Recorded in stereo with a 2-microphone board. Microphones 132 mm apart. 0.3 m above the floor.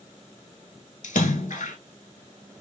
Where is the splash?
80° left, 0.7 m.